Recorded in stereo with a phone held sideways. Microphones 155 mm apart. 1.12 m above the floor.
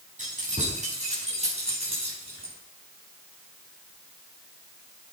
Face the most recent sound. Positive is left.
turn(degrees=-40)  # may be behind; listen again after turning